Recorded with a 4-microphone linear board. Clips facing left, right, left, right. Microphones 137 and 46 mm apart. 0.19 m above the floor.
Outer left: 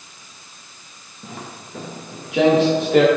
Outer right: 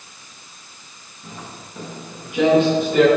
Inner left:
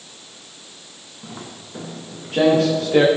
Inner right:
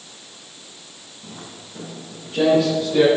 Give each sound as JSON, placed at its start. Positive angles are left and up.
{"t": 1.2, "sound": "footsteps", "side_deg": 90, "distance_m": 3.5}